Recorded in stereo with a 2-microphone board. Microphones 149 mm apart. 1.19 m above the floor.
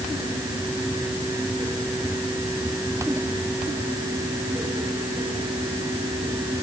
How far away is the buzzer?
No buzzer in this recording.